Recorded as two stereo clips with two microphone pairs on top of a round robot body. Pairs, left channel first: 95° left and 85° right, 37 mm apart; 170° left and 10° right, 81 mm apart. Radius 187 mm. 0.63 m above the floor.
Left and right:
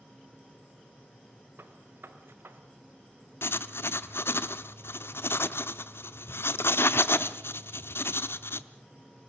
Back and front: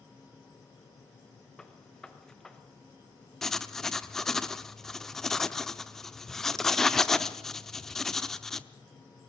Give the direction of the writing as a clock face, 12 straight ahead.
9 o'clock.